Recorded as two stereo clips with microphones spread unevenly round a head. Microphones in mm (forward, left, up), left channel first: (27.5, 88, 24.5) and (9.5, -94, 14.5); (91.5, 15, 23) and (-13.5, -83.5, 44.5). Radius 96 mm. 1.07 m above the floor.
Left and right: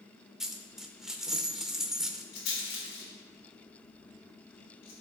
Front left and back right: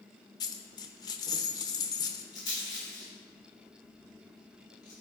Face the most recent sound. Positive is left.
turn(degrees=110)